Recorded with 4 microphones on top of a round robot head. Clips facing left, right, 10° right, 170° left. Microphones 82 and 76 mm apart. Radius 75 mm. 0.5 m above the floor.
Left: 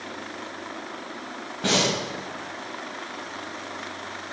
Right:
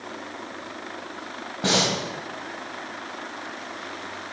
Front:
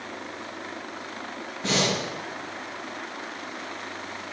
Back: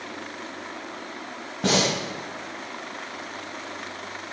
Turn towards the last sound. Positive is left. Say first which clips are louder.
# even, back 3 dB
turn(degrees=-155)